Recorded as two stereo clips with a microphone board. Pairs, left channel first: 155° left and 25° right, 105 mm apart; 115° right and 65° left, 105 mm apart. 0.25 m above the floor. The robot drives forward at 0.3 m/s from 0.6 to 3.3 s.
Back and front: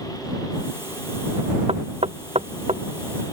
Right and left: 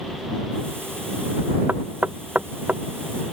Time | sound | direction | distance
1.7 | knocking | 5° right | ?